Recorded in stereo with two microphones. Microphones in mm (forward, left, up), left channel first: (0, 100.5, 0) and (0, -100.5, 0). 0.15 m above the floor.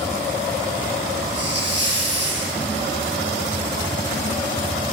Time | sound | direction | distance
1.4 | a hiss | 60° right (ahead or behind) | 6.5 m